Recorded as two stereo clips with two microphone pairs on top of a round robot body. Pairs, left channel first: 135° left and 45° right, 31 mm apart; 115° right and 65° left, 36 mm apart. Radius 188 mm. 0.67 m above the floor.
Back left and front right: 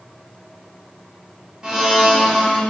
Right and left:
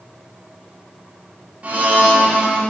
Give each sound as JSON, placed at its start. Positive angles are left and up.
{"t": 1.6, "sound": "a blender", "azimuth_deg": 15, "distance_m": 3.0}